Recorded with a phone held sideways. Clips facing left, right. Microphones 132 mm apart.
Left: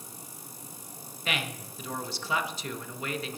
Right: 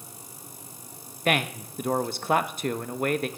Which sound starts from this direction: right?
A man speaking, at 1.2 s.